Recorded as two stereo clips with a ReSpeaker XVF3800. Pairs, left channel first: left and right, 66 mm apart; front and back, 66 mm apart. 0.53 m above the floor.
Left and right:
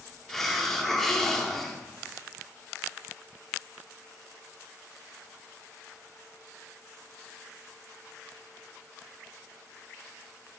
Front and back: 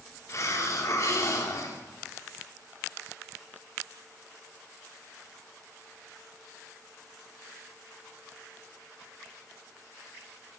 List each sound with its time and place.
0.3 s a hiss: 5° left, 0.6 m